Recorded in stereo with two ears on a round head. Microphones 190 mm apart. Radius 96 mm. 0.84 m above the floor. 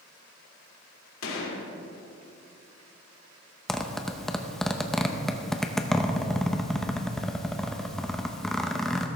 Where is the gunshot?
70° left (ahead or behind), 2.5 m.